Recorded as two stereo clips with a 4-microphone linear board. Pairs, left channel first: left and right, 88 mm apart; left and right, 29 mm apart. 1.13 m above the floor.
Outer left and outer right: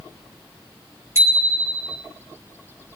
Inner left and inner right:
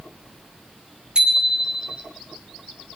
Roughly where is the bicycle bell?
Right.